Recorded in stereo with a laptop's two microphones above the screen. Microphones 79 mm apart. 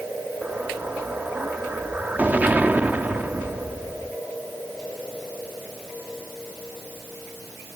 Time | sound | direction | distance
0.4 | an explosion | 20° right (ahead or behind) | ?